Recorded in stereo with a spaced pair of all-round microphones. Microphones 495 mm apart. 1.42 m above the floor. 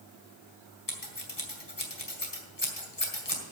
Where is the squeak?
I don't hear a squeak.